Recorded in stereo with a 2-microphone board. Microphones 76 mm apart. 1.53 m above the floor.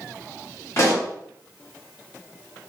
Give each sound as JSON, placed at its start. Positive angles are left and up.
{"t": 0.8, "sound": "a pop", "side_deg": 40, "distance_m": 0.9}